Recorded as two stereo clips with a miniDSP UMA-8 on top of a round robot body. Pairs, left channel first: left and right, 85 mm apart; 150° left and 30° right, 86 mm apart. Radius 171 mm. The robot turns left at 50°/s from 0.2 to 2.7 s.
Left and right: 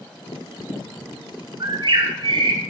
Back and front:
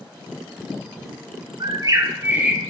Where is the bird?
60° right, 0.6 m; by 2.6 s 110° right, 0.6 m.